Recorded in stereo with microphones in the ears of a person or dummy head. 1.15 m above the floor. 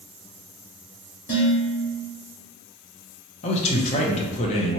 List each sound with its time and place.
1.3 s dishes clattering: 35° left (ahead or behind), 1.6 m
3.4 s a man speaking: 35° left (ahead or behind), 0.9 m